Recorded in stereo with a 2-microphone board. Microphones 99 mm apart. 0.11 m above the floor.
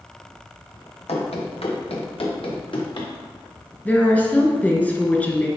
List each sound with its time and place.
1.1 s running footsteps: 90° left, 2.0 m; by 3.1 s 50° left (ahead or behind), 2.5 m
3.9 s a woman speaking: 15° left (ahead or behind), 1.1 m